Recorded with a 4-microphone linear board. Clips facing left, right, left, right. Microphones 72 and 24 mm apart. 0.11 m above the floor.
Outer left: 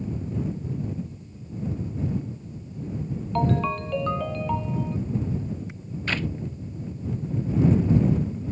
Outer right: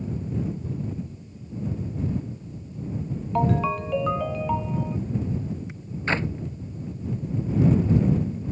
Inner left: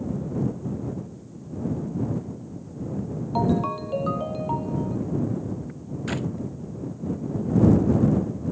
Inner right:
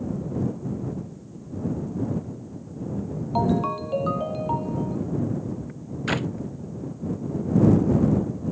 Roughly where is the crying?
I don't hear crying.